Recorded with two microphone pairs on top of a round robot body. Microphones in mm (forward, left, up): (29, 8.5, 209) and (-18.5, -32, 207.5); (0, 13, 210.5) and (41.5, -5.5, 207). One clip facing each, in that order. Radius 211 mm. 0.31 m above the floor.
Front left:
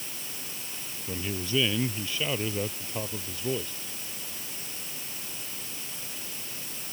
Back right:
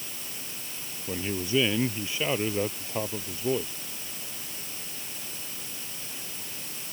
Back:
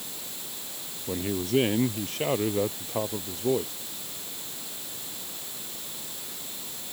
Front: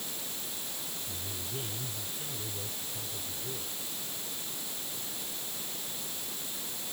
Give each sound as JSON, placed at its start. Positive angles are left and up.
{"t": 1.1, "sound": "a man speaking", "azimuth_deg": 145}